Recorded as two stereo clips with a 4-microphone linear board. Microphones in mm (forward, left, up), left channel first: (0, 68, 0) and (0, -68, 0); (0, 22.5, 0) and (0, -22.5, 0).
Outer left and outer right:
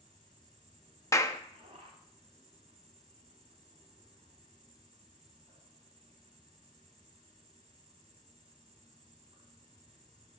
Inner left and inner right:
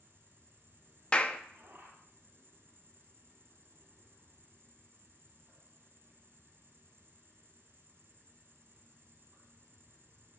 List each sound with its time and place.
0.0 s an insect: 50° right (ahead or behind), 5 m
1.1 s a clap: 25° left (ahead or behind), 0.8 m